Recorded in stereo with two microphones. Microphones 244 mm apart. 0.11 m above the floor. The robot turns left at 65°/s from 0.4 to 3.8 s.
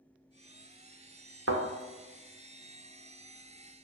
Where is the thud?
60° right (ahead or behind), 0.7 m; by 1.6 s 70° right (ahead or behind), 0.7 m.